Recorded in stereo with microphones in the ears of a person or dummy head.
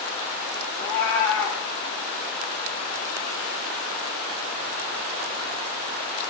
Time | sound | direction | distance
0.8 | a cat meowing | 15° left (ahead or behind) | 1.3 m